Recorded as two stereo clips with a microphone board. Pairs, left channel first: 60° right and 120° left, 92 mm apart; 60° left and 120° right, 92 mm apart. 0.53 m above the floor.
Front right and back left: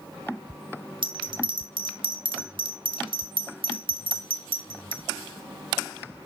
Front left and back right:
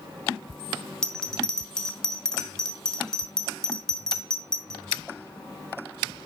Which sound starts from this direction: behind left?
A bell, at 1.0 s.